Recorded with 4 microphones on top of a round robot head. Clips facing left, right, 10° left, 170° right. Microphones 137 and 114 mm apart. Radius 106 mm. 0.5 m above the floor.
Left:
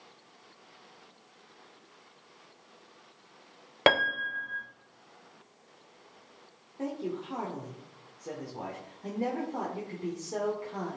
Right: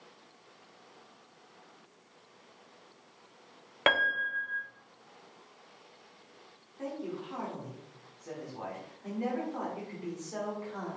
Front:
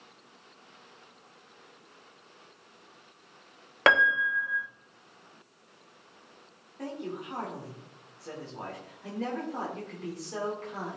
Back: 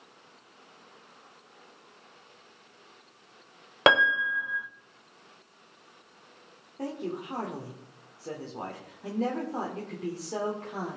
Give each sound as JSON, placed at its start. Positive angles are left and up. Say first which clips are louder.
{"t": 3.9, "sound": "a piano", "louder": "left 5 dB, back 1 dB", "azimuth_deg": 125, "distance_m": 0.7}
{"t": 6.8, "sound": "a man speaking", "louder": "left 3 dB, back 3 dB", "azimuth_deg": 140, "distance_m": 1.8}